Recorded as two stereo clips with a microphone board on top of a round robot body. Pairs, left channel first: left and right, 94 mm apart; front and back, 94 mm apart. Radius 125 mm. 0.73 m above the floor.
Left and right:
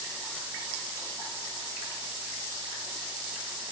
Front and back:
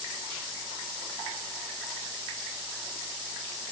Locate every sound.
Only background noise.